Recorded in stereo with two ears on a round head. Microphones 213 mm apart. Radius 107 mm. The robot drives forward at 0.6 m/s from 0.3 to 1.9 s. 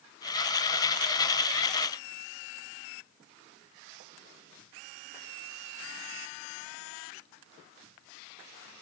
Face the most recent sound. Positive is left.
No sound to turn to.